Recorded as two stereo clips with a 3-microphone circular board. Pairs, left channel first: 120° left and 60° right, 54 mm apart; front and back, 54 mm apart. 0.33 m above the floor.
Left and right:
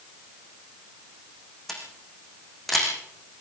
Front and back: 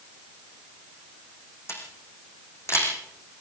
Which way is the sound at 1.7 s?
35° left.